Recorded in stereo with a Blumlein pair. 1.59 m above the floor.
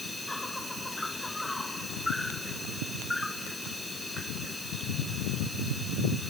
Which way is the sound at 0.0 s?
5° left.